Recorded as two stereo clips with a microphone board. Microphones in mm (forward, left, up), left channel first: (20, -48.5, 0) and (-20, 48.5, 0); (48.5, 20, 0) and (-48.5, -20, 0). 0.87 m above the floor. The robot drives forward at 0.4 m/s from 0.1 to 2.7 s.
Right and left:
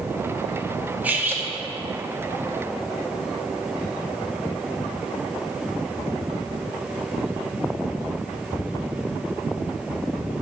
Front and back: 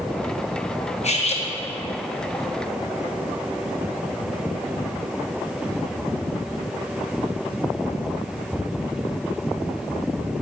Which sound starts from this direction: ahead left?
Cutlery clinking, at 1.0 s.